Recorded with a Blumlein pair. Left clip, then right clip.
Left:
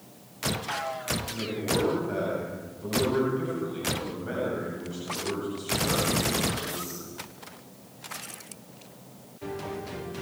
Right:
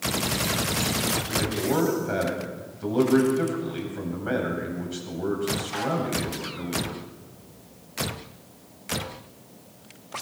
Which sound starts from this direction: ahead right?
A man speaking, at 1.3 s.